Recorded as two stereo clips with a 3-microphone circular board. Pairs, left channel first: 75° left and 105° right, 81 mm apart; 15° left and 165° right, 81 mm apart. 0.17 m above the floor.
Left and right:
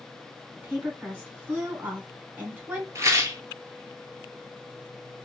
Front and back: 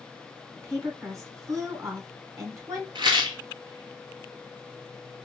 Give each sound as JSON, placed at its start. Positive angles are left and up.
{"t": 0.6, "sound": "a woman speaking", "azimuth_deg": -155, "distance_m": 1.7}
{"t": 3.0, "sound": "a rattle", "azimuth_deg": -155, "distance_m": 1.2}